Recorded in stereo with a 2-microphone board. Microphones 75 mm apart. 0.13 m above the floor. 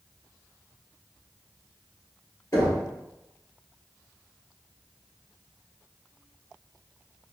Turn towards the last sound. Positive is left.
turn(degrees=45)  # may be behind; listen again after turning